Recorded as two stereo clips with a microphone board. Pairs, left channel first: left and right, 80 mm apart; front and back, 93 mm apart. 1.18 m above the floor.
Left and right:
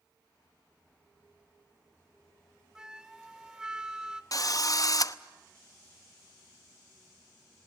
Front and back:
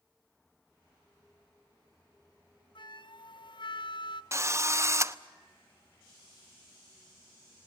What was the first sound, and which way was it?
A flute, 10° right.